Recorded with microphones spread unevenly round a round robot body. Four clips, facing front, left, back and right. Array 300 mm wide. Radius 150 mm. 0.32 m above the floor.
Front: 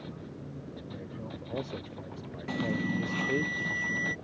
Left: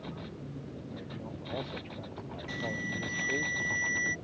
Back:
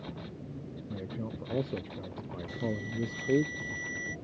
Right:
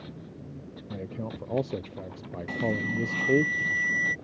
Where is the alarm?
30° right.